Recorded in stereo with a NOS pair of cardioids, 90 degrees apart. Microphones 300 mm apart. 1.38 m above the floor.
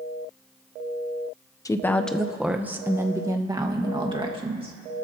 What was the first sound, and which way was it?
A woman speaking, 10° left.